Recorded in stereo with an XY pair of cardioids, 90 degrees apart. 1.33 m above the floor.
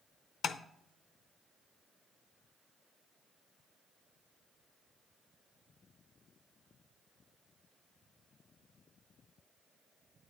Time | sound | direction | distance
0.4 | tapping | 65° left | 0.6 m